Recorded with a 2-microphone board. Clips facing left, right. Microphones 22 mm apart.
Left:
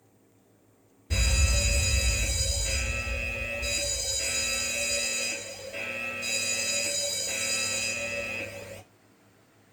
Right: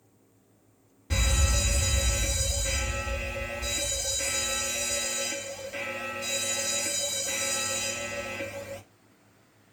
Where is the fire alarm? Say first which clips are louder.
Even; 40° right (ahead or behind), 1.7 m.